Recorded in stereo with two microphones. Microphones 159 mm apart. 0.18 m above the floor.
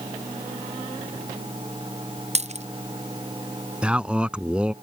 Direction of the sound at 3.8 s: 5° right (ahead or behind).